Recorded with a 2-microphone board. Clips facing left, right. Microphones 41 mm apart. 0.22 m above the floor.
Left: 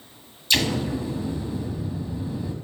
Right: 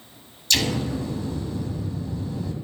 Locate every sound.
0.5 s an explosion: 20° left (ahead or behind), 0.9 m